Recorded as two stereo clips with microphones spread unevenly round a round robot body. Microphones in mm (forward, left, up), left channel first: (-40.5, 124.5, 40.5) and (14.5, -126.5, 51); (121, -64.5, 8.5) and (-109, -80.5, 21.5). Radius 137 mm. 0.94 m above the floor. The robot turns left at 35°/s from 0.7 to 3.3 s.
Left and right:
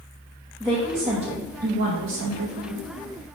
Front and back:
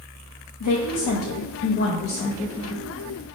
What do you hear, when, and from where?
0.6 s a woman speaking: 10° left, 0.7 m; by 2.9 s 65° right, 0.7 m